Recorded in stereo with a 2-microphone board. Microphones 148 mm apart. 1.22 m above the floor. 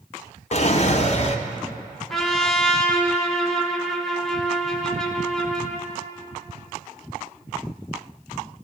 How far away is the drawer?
About 0.5 m.